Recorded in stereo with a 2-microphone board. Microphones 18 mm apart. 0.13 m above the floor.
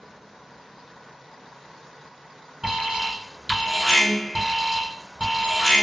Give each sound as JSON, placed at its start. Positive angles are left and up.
{"t": 2.6, "sound": "an alarm", "side_deg": -20, "distance_m": 2.0}